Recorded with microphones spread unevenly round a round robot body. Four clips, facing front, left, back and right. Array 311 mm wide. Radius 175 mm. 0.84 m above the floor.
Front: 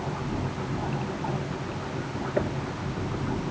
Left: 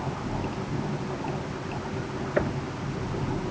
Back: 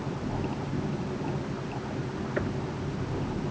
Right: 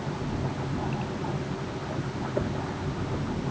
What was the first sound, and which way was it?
Only background noise.